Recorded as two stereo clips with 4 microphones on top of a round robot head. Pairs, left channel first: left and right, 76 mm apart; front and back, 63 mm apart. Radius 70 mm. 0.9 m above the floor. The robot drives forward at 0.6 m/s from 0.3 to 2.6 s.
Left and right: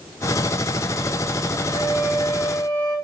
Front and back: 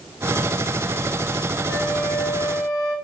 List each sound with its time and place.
1.7 s a flute: 20° left, 1.9 m; by 3.0 s 25° left, 1.4 m